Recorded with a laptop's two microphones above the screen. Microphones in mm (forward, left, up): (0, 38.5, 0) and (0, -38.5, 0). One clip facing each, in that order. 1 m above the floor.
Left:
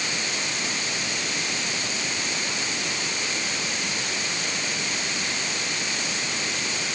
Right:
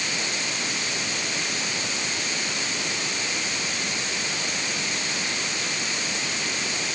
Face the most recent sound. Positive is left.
No sound to turn to.